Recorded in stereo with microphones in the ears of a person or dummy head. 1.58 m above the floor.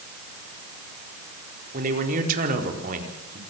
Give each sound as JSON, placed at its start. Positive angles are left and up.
{"t": 1.7, "sound": "a man speaking", "side_deg": -40, "distance_m": 4.5}